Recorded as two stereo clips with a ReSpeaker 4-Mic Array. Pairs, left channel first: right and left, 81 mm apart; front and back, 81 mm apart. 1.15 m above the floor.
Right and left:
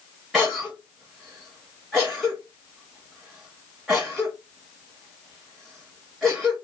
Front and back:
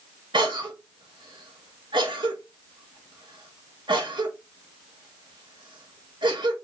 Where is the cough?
Straight behind, 1.3 m.